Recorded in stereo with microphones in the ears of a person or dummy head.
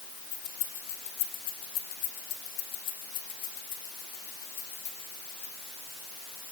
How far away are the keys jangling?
About 0.9 m.